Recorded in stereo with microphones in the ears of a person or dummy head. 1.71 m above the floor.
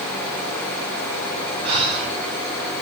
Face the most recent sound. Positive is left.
turn(degrees=-30)  # may be behind; listen again after turning